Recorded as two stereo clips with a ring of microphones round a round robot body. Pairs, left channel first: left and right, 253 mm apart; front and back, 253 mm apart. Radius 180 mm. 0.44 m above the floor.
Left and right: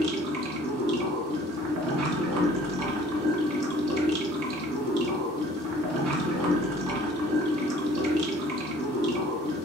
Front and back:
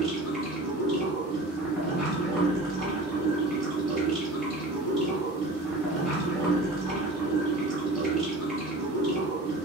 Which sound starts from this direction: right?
Running water, at 0.0 s.